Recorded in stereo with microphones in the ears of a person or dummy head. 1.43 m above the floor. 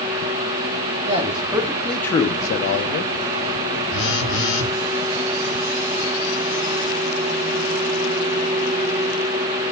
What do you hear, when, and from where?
1.1 s a man speaking: 30° right (ahead or behind), 1.0 m; by 3.1 s 70° left (ahead or behind), 0.9 m
3.9 s a phone buzzing: 20° left (ahead or behind), 2.5 m